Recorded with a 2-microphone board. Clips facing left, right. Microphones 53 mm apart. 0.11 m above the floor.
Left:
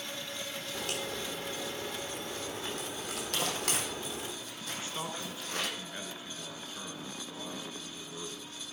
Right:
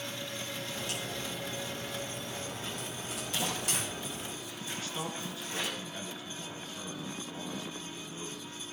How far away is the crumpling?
About 3.5 m.